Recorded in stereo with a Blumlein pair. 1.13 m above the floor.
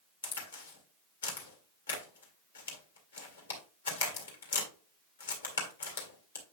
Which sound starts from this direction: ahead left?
A crack, at 0.2 s.